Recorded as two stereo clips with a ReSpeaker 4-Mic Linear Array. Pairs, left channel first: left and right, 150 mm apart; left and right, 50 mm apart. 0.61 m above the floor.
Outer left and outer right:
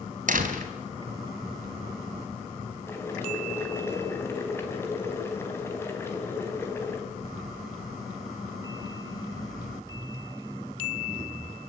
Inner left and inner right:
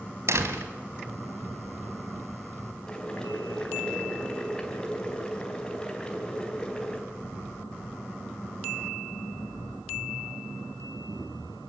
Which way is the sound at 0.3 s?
65° right (ahead or behind).